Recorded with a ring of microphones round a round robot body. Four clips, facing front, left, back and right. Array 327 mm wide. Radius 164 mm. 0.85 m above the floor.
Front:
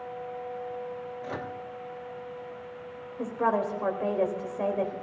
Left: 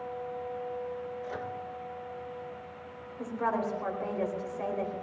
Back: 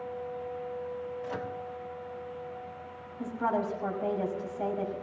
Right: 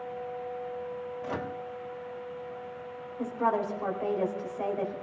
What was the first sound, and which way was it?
A microwave, 70° right.